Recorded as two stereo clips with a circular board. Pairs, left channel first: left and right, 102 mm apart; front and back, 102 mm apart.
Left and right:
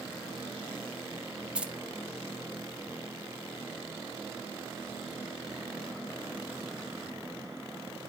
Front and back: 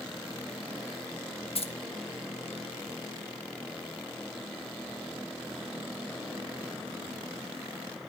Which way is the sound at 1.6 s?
10° right.